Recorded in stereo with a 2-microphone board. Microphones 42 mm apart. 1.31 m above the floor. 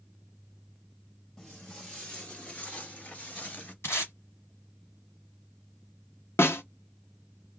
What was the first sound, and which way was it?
Footsteps, 20° left (ahead or behind).